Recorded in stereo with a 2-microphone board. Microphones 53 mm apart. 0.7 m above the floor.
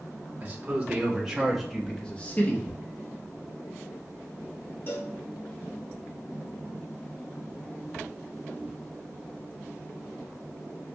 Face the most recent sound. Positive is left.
turn(degrees=45)  # may be behind; listen again after turning